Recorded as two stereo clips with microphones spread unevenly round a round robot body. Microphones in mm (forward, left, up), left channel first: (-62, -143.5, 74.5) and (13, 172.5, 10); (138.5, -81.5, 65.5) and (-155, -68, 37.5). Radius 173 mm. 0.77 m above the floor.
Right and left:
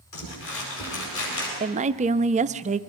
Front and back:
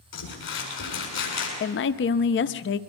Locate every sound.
0.1 s crumpling: 50° right, 7.5 m
1.6 s a woman speaking: 35° left, 0.6 m